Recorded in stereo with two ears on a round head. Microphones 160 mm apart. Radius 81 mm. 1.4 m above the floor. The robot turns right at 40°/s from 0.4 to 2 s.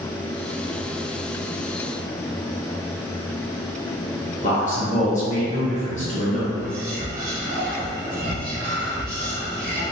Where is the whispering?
45° right (ahead or behind), 1.0 m.